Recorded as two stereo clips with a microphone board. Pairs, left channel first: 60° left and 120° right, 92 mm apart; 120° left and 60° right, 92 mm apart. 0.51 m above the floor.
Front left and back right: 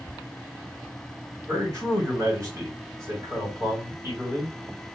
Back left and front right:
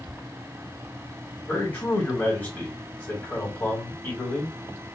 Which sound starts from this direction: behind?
A man speaking, at 1.5 s.